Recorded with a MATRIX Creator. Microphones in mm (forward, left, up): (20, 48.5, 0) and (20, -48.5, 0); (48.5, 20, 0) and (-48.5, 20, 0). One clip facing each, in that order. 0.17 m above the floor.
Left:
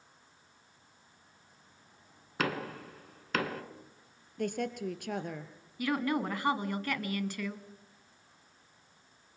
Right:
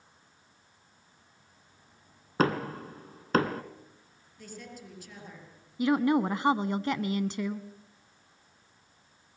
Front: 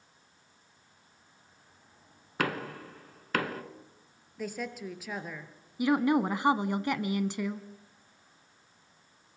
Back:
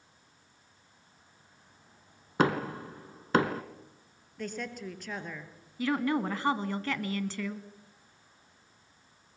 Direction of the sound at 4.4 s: 80° left.